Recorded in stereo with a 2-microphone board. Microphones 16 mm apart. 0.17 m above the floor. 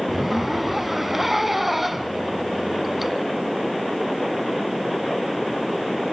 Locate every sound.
0.1 s a zipper: 15° right (ahead or behind), 1.7 m